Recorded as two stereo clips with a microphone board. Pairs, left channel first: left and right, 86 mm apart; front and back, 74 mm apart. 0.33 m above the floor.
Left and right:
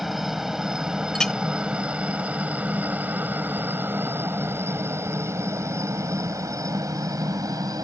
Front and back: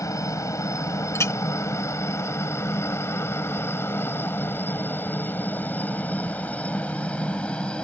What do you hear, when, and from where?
0.0 s a helicopter: 5° right; by 7.8 s 70° right
1.1 s a clink: 10° left